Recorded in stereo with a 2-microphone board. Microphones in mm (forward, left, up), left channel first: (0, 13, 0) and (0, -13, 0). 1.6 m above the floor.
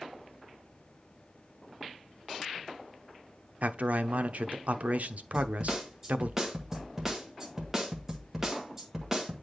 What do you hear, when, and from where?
3.6 s a man speaking: 65° right (ahead or behind), 0.6 m
5.3 s a snare drum: 15° right (ahead or behind), 1.5 m